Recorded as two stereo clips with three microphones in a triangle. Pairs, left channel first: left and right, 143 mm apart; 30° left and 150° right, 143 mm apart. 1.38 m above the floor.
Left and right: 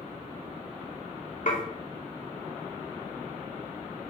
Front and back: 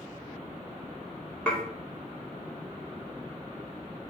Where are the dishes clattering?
110° left, 2 m.